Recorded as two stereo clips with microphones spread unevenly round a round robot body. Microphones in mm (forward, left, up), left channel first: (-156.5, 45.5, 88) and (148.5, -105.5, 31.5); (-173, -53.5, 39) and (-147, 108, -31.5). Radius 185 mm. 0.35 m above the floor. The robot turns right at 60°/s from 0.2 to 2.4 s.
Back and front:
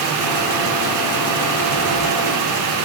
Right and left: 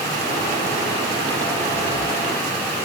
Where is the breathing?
30° right, 3 m; by 2.1 s straight ahead, 3 m.